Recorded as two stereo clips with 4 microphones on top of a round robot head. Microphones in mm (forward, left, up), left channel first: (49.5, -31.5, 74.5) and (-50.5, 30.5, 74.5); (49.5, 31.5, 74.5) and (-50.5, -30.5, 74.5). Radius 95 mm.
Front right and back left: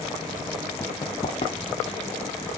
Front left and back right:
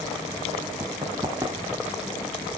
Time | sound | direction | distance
0.8 | running footsteps | 90° right | 1.8 m